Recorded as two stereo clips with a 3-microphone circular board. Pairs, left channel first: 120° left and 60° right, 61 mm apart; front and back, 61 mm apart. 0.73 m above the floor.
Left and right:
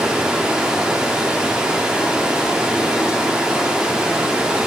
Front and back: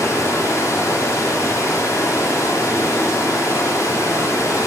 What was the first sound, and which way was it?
Running water, 15° left.